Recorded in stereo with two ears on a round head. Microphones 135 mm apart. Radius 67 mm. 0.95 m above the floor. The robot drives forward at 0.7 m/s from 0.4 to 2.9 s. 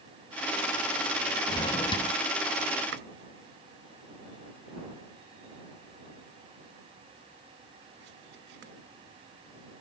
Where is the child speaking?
No child speaking in this recording.